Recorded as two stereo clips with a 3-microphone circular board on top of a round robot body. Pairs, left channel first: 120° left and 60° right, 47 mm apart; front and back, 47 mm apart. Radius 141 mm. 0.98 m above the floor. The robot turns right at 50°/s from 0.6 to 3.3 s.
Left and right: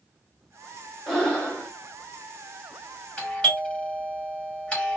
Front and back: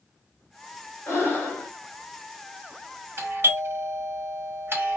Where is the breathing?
40° left, 1.4 m; by 1.7 s 75° left, 1.4 m.